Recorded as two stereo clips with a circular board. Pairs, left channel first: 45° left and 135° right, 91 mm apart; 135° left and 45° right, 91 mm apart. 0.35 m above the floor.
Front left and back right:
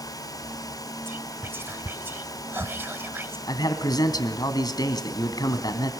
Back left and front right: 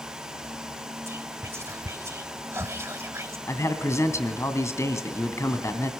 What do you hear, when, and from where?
1.1 s whispering: 85° right, 1.5 m
3.5 s a man speaking: 80° left, 2.5 m